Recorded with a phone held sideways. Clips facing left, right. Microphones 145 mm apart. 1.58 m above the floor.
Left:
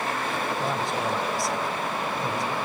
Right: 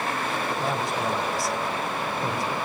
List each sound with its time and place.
0.6 s a man speaking: 5° right (ahead or behind), 1.6 m